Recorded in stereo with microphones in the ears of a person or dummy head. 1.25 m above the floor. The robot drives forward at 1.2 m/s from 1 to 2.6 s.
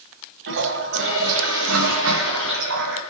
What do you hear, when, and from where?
0.5 s a toilet flushing: 65° right (ahead or behind), 2.5 m; by 3.0 s 60° right (ahead or behind), 2.5 m